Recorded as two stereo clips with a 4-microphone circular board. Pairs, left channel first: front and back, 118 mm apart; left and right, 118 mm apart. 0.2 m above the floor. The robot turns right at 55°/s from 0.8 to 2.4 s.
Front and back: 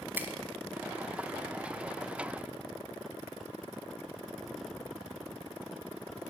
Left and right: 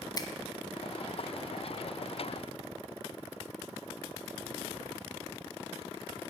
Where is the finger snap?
115° left, 1.1 m.